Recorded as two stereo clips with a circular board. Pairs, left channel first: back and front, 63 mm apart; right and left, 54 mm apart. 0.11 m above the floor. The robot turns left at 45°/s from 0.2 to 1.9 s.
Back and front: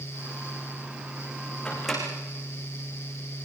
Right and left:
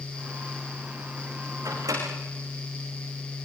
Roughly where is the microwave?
Left.